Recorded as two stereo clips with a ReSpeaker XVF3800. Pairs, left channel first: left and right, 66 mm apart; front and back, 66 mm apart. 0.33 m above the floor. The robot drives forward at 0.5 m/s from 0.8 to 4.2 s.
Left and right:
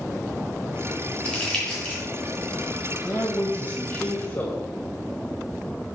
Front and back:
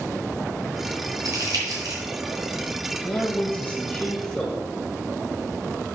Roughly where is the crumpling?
Behind.